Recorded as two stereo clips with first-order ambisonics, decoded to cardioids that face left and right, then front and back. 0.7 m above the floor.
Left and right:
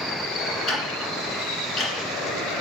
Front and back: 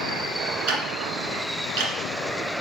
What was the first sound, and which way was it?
Ticking, 165° left.